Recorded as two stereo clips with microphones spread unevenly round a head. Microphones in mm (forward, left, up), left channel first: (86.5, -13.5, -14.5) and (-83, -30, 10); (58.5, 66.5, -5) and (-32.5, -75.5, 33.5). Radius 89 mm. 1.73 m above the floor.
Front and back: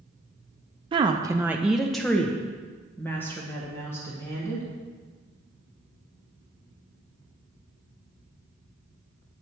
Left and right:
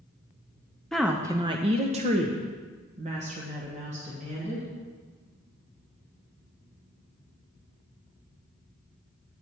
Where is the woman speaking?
160° left, 0.5 m; by 4.7 s 70° right, 2.5 m.